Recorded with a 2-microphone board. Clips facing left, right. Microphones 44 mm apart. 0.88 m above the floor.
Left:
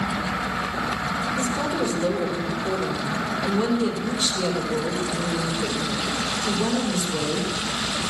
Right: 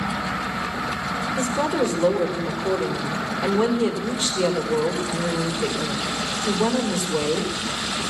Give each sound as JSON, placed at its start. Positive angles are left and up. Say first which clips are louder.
{"t": 1.4, "sound": "a woman speaking", "louder": "right 2 dB", "side_deg": -35, "distance_m": 3.0}